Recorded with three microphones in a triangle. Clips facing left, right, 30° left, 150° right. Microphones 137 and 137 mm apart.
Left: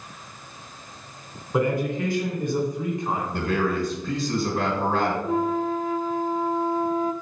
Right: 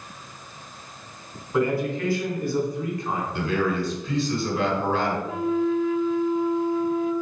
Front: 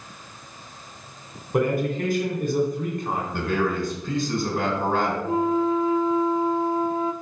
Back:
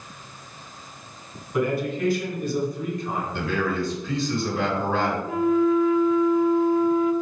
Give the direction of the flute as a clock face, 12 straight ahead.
10 o'clock.